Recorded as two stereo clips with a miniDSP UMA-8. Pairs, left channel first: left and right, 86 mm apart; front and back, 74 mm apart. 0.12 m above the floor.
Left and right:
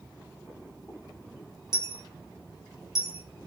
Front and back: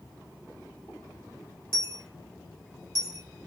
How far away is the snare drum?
No snare drum in this recording.